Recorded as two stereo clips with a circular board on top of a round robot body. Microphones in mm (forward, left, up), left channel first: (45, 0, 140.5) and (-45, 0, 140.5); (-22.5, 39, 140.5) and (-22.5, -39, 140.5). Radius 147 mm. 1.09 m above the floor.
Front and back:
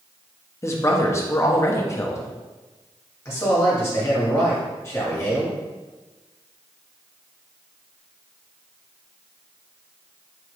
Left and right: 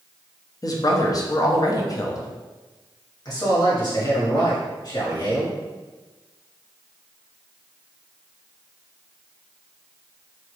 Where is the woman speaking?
55° left, 0.8 m.